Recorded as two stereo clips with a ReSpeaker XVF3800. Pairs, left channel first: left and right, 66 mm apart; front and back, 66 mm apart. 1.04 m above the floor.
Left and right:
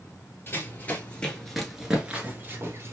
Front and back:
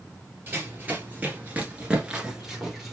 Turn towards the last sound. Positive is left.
turn(degrees=-90)